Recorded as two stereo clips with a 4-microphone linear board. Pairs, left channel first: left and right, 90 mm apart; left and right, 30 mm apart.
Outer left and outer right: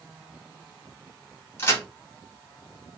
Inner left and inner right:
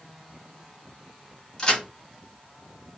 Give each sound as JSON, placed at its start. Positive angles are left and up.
{"t": 1.6, "sound": "a crack", "side_deg": 25, "distance_m": 1.2}